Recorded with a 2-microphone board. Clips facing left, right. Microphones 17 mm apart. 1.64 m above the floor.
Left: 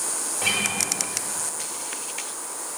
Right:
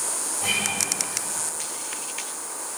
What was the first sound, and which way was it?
A guitar, 75° left (ahead or behind).